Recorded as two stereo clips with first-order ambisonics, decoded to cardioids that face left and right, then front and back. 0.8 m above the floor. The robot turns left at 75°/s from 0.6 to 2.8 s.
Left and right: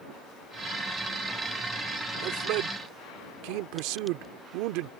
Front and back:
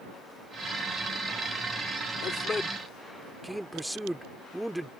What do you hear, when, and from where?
2.2 s a man speaking: 50° right; by 4.9 s 95° right